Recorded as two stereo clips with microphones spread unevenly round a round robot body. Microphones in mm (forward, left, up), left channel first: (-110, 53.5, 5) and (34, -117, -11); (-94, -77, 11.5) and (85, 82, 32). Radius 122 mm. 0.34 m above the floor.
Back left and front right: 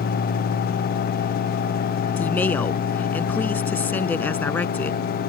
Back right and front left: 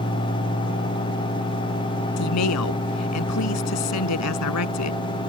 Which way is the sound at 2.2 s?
150° right.